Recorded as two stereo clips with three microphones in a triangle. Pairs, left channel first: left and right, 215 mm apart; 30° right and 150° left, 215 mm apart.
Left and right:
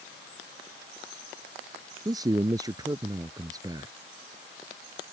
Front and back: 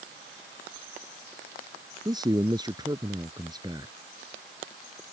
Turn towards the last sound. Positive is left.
turn(degrees=-150)